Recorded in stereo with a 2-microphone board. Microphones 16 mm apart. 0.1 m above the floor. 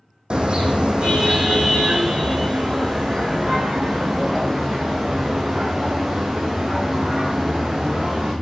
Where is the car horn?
75° right (ahead or behind), 2.5 m; by 8.3 s 60° right (ahead or behind), 7 m.